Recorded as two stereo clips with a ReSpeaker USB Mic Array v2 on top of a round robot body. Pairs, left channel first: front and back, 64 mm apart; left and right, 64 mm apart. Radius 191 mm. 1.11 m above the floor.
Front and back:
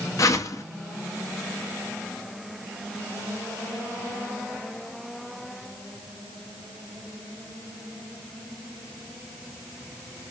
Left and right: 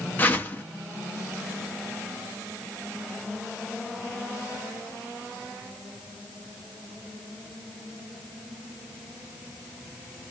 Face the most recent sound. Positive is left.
turn(degrees=30)